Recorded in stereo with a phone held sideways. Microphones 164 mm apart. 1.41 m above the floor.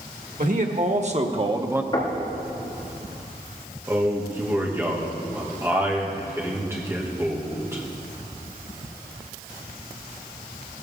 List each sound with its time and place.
0.4 s a man speaking: 55° right (ahead or behind), 1.7 m; by 1.8 s 10° right (ahead or behind), 0.7 m
1.9 s knocking: 30° left (ahead or behind), 3 m
3.9 s a man speaking: 15° right (ahead or behind), 2 m